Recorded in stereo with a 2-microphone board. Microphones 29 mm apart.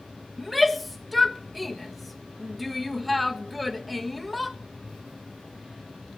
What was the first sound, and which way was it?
A shout, centre (ahead or behind).